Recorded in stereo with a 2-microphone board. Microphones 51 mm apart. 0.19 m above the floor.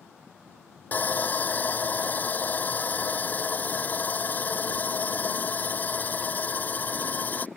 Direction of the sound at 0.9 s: 40° left (ahead or behind).